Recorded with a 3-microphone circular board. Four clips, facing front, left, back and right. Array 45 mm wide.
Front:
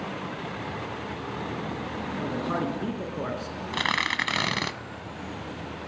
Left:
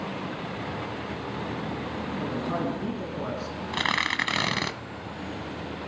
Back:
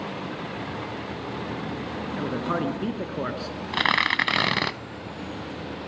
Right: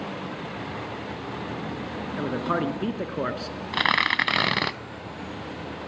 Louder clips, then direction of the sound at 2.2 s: Right 5 dB, back 2 dB; 115° right.